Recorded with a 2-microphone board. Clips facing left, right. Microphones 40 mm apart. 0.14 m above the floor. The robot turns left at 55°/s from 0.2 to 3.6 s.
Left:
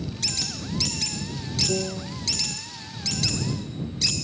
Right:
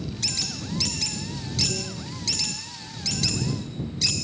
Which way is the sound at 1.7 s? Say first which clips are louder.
Left 5 dB; 55° left (ahead or behind).